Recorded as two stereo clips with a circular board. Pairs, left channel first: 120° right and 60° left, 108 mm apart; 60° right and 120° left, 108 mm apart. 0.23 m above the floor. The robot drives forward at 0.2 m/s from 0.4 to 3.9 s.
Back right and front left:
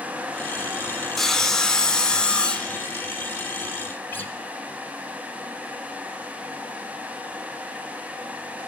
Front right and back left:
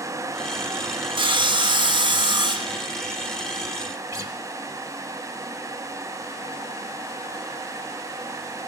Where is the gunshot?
No gunshot in this recording.